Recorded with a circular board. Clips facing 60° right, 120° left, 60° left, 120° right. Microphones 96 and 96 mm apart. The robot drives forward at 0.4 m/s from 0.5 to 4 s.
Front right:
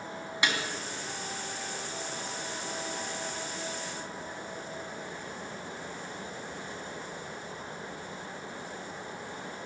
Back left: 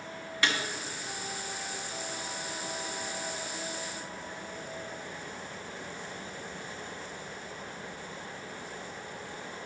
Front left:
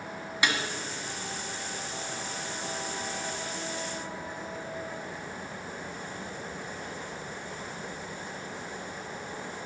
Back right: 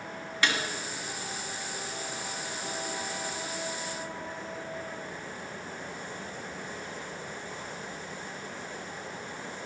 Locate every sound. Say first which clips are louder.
0.4 s a snare drum: even, even; straight ahead, 1.5 m